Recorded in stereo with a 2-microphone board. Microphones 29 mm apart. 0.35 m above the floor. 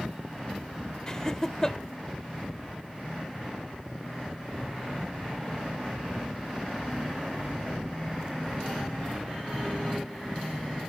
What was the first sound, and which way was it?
Laughter, 25° left (ahead or behind).